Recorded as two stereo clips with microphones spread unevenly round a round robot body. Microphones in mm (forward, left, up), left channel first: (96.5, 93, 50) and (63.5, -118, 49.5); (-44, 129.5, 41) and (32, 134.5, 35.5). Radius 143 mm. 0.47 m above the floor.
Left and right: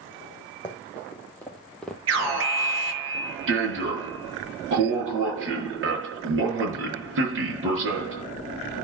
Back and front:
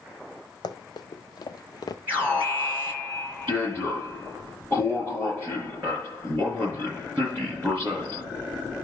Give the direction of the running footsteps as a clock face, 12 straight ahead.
7 o'clock.